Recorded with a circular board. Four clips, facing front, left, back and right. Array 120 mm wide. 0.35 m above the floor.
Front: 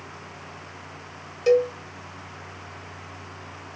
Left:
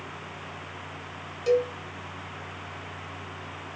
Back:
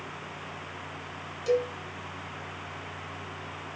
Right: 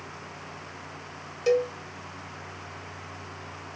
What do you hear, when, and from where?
1.5 s a cowbell: 30° right, 0.8 m